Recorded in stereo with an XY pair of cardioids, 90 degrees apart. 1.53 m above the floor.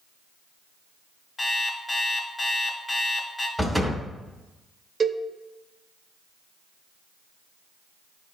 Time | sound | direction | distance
1.4 | an alarm clock | 35° left | 1.8 m
3.6 | a door slam | 5° left | 2.5 m
5.0 | a cowbell | 45° right | 1.1 m